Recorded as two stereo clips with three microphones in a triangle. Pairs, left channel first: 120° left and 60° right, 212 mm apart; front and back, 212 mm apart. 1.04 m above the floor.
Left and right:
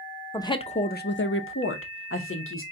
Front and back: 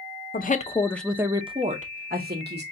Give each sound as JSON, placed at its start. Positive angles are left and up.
{"t": 0.3, "sound": "a woman speaking", "azimuth_deg": 45, "distance_m": 0.6}